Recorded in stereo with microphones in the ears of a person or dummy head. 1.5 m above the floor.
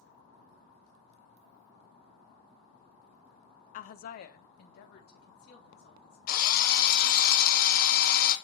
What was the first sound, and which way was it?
A woman speaking, 45° left (ahead or behind).